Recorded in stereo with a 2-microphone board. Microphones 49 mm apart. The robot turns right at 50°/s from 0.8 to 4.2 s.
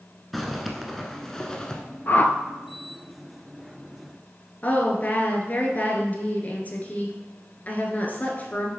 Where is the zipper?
5° left (ahead or behind), 0.8 m; by 1.8 s 15° left (ahead or behind), 0.8 m.